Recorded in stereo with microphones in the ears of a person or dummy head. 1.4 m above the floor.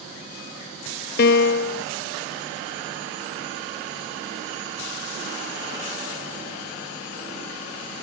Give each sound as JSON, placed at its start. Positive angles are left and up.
{"t": 1.2, "sound": "a piano", "side_deg": 60}